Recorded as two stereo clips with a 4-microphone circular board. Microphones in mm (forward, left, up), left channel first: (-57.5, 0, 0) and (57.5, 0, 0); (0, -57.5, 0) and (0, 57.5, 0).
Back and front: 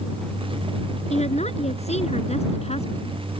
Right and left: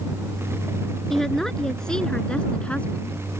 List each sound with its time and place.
1.1 s a woman speaking: 175° right; by 3.2 s 165° right